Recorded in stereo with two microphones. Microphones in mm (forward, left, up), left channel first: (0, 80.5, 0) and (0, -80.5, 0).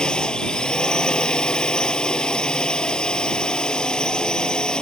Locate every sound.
0.0 s a drone: 5° left (ahead or behind)